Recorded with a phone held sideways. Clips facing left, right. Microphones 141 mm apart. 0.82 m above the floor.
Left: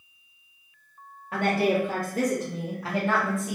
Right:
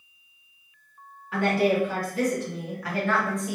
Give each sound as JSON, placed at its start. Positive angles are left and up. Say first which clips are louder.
{"t": 1.3, "sound": "a woman speaking", "louder": "right 1 dB", "side_deg": 55, "distance_m": 1.6}